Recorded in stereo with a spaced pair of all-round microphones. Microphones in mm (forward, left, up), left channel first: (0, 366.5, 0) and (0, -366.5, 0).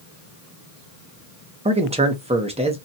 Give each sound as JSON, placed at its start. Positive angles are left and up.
{"t": 1.6, "sound": "a man speaking", "side_deg": -10, "distance_m": 0.6}